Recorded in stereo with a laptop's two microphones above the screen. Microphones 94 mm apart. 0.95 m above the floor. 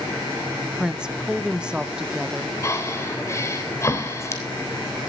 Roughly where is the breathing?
Left.